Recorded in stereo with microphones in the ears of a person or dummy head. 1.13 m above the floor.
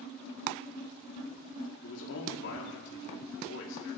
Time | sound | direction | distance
1.8 | a man speaking | 70° left (ahead or behind) | 2 m